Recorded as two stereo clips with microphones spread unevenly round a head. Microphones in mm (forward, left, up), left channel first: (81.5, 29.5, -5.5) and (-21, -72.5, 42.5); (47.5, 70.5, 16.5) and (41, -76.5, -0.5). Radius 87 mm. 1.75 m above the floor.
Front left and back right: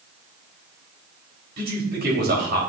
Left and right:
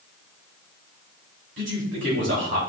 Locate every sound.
1.6 s a man speaking: 120° right, 3.5 m